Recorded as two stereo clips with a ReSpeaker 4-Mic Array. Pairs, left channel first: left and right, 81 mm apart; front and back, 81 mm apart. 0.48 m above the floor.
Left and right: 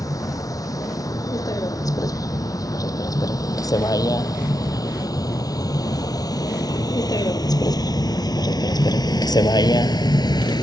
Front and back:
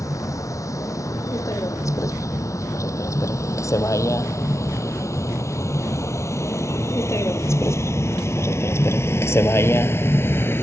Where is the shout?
I don't hear a shout.